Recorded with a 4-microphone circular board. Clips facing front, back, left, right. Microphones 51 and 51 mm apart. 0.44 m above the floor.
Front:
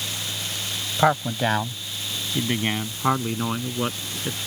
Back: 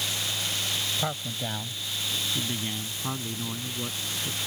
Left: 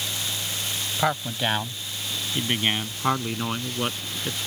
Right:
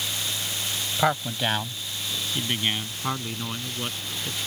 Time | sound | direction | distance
1.0 | a man speaking | 5° right | ?